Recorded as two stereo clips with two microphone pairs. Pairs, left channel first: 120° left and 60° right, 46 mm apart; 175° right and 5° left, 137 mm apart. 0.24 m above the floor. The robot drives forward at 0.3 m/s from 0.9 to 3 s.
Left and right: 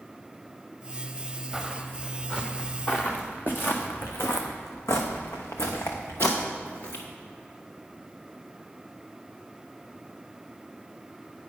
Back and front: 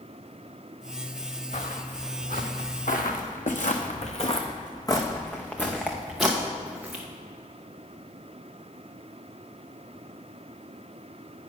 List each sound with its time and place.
1.5 s footsteps: 155° right, 1.9 m; by 7.0 s 85° left, 2.5 m